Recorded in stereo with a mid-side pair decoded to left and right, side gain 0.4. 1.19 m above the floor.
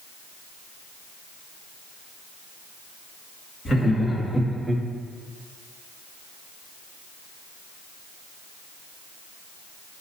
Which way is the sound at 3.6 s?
40° left.